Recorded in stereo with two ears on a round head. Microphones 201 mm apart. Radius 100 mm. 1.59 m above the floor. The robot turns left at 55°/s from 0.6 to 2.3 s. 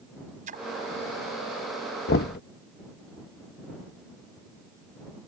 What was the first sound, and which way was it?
A splash, 35° right (ahead or behind).